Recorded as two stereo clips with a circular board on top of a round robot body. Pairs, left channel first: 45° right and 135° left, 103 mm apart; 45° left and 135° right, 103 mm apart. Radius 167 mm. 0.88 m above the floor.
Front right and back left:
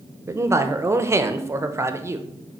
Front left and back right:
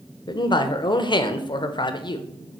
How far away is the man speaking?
About 0.9 m.